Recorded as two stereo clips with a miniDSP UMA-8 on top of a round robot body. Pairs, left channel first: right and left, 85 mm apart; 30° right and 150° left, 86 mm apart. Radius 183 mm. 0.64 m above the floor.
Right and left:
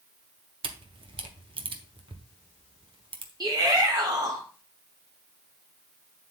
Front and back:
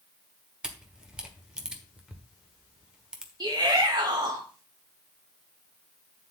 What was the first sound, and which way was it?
A camera shutter, 65° left.